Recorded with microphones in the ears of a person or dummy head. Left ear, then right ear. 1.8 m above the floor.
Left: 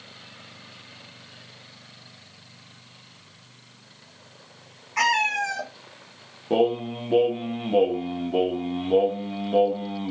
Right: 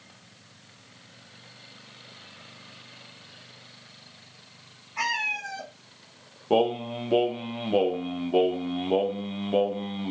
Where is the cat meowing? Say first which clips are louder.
Left 6 dB; 25° left (ahead or behind), 1.2 m.